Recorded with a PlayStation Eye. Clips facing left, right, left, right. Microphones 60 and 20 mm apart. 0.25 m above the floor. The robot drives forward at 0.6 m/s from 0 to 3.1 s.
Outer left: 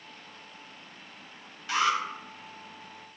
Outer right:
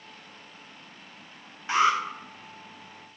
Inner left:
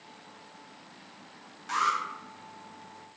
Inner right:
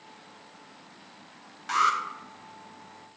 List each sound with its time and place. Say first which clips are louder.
1.7 s an alarm: outer right 4 dB, inner right 3 dB; 25° right (ahead or behind), 0.6 m